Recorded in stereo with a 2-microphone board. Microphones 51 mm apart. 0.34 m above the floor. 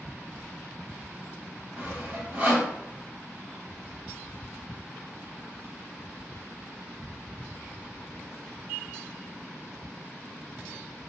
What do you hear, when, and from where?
1.8 s sawing: 25° right (ahead or behind), 1.3 m